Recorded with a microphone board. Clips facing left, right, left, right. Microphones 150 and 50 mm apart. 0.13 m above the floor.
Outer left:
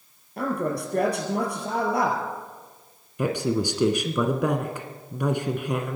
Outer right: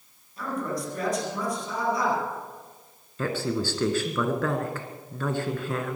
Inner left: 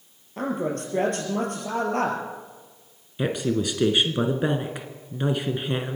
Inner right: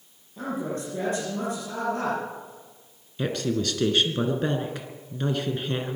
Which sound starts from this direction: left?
A man speaking, at 0.4 s.